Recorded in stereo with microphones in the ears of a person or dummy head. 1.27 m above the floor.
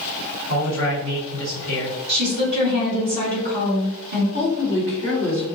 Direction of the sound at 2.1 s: 55° right (ahead or behind).